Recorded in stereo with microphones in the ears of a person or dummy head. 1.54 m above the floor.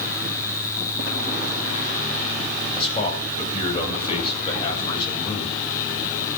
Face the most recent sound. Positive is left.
turn(degrees=35)  # may be behind; listen again after turning